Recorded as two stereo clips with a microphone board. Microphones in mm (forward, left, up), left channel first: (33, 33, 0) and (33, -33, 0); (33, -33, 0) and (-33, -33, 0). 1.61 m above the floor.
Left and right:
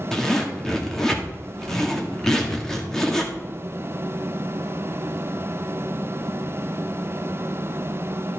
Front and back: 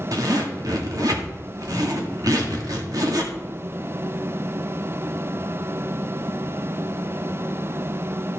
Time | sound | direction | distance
0.1 | a zipper | 175° left | 1.9 m